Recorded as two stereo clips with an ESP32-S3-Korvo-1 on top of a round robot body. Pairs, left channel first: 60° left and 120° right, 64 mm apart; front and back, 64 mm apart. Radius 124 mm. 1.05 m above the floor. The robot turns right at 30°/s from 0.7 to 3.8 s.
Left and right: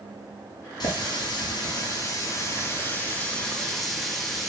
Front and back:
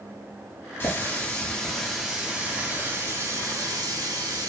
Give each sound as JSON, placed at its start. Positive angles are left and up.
{"t": 0.8, "sound": "a running tap", "azimuth_deg": 60, "distance_m": 1.6}